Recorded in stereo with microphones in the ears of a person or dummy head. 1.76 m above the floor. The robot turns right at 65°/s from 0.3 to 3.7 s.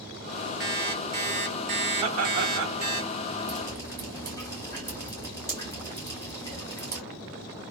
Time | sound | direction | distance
0.6 | an alarm clock | 165° right | 2.0 m
2.0 | laughter | 150° right | 1.0 m
3.5 | dripping | 20° left (ahead or behind) | 0.6 m